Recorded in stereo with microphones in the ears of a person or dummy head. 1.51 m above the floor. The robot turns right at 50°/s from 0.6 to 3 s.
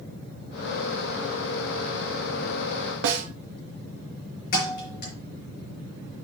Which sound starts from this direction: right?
A snare drum, at 3.0 s.